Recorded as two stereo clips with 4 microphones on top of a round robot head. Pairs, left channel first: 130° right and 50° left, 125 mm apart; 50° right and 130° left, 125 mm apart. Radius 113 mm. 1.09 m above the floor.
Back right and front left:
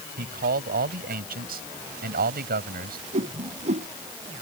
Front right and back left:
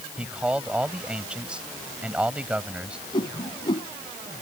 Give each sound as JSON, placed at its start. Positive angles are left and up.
{"t": 0.2, "sound": "a man speaking", "azimuth_deg": 45}
{"t": 3.1, "sound": "a whoosh", "azimuth_deg": 10}